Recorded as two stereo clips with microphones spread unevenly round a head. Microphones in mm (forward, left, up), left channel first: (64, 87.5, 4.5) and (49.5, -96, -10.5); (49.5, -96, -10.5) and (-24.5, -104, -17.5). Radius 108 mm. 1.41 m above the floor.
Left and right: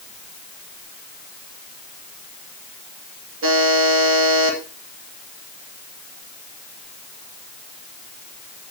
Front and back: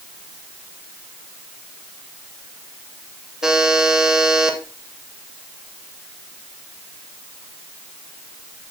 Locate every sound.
3.4 s a buzzer: 90° right, 2.5 m